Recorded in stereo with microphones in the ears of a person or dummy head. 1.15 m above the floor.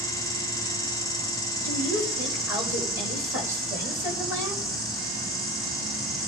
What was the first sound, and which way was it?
An insect, 5° left (ahead or behind).